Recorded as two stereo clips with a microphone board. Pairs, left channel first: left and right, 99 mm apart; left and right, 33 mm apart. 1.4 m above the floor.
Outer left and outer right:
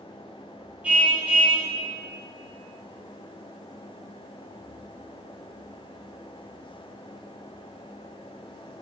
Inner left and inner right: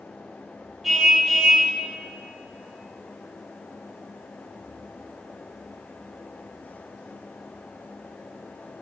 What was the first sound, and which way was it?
A car horn, 10° right (ahead or behind).